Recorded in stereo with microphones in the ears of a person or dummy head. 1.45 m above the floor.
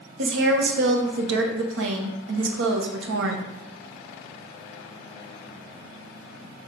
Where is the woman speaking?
70° right (ahead or behind), 0.7 m.